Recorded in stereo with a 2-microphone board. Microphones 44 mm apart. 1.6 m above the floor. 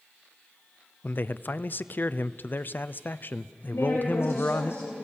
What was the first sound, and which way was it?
A man speaking, 45° left (ahead or behind).